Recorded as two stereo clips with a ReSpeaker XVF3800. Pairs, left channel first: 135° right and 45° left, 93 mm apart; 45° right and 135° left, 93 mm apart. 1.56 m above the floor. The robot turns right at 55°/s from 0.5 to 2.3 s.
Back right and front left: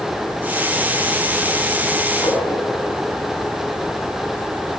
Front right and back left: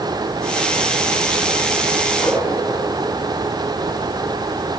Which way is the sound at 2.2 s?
95° right.